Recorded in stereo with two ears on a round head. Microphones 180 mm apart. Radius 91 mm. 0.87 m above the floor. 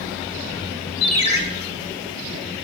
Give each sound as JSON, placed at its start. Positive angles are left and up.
{"t": 1.0, "sound": "a ringtone", "side_deg": 30, "distance_m": 1.1}